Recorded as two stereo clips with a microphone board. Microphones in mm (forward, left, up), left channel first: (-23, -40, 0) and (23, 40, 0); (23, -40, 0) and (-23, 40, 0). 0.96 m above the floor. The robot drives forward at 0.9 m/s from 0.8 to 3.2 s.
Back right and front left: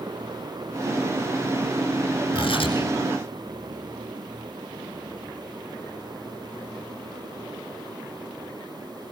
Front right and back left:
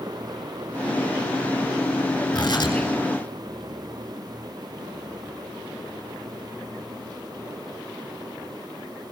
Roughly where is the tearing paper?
Right.